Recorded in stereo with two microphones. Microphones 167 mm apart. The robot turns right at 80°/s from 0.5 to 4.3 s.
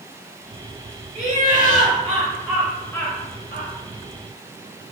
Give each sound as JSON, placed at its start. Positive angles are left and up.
{"t": 1.1, "sound": "laughter", "azimuth_deg": -125, "distance_m": 1.2}